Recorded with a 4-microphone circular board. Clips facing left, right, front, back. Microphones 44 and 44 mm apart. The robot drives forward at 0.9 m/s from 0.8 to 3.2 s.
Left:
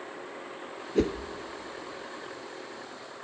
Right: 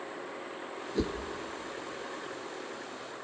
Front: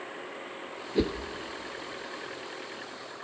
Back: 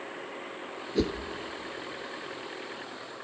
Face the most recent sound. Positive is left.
turn(degrees=155)